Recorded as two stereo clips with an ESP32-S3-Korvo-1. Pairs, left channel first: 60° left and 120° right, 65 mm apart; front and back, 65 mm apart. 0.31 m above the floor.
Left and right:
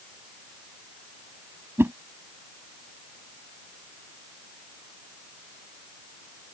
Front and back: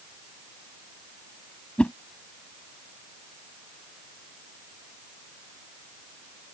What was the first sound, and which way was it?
A whoosh, 75° right.